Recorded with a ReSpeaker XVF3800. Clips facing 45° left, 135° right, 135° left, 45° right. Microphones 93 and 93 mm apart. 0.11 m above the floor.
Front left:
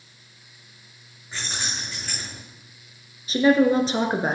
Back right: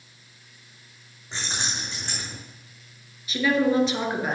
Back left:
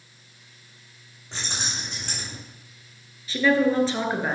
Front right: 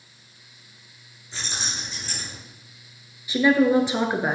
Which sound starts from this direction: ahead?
A woman speaking, at 3.3 s.